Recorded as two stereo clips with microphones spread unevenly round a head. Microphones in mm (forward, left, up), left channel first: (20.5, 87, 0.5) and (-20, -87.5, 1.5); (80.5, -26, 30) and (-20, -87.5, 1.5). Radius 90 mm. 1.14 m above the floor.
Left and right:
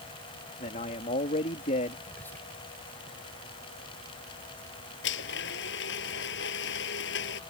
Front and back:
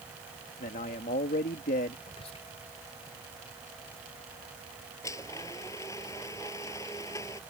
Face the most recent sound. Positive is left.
turn(degrees=105)